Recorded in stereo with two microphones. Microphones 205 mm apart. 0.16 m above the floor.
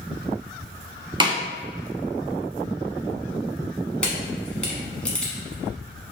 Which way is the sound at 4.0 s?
5° left (ahead or behind).